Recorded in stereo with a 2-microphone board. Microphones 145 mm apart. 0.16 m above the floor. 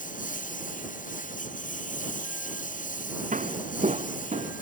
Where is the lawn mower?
70° left (ahead or behind).